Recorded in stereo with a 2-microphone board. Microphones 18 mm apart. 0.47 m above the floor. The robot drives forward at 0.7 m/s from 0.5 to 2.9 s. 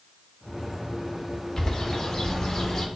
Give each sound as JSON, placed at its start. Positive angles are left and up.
{"t": 1.6, "sound": "a bird", "side_deg": 35, "distance_m": 1.6}